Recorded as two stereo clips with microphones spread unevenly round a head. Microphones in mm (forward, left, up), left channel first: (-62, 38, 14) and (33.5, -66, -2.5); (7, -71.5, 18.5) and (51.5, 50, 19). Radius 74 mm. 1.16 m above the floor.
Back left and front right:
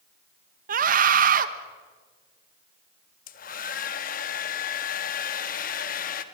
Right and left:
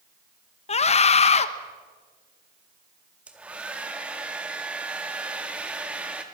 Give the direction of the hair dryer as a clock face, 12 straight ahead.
7 o'clock.